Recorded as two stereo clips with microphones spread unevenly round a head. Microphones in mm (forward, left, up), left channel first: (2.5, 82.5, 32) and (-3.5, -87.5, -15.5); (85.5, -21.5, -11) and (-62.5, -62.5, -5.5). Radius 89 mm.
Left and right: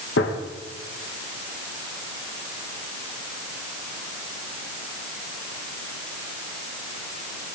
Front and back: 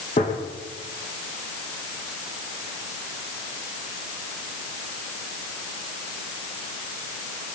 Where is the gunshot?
70° left, 2 m.